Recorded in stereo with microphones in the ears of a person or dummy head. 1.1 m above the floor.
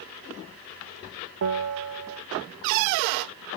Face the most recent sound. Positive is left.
turn(degrees=-70)  # may be behind; listen again after turning